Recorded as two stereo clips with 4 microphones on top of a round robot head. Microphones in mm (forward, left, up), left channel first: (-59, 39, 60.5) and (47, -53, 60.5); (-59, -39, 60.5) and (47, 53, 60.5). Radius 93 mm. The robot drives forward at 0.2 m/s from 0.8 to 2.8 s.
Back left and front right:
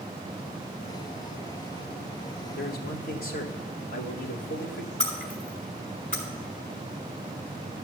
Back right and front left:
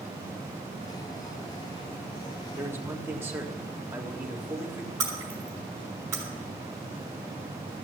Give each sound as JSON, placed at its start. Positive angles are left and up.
{"t": 2.6, "sound": "a man speaking", "azimuth_deg": 115, "distance_m": 1.8}
{"t": 5.0, "sound": "breaking glass", "azimuth_deg": 115, "distance_m": 4.0}